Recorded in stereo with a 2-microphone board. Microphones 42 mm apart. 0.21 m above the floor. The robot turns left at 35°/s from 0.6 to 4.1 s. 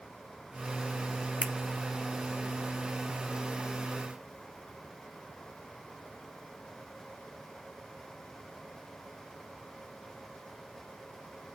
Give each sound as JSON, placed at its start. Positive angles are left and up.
{"t": 1.4, "sound": "a finger snap", "side_deg": -35, "distance_m": 1.3}